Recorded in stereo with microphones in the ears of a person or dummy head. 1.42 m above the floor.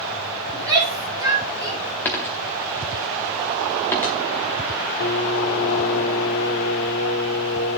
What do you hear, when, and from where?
0.5 s a shout: 20° right (ahead or behind), 4.5 m
2.0 s a dropped coin: 10° left (ahead or behind), 1.0 m
5.0 s singing: 65° left (ahead or behind), 1.9 m